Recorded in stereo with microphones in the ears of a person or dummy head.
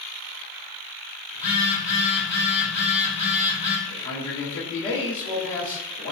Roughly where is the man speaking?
Left.